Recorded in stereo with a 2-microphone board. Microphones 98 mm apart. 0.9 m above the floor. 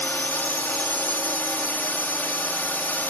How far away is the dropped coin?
No dropped coin in this recording.